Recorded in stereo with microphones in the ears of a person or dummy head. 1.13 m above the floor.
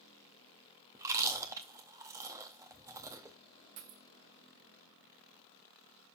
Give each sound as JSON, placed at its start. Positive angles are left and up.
{"t": 0.9, "sound": "chewing", "side_deg": -15, "distance_m": 0.6}
{"t": 3.8, "sound": "a dropped coin", "side_deg": -45, "distance_m": 0.9}